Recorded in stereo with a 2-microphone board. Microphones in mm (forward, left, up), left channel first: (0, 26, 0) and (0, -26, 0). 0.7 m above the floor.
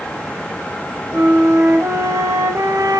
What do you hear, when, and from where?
1.1 s a flute: 80° right, 2.5 m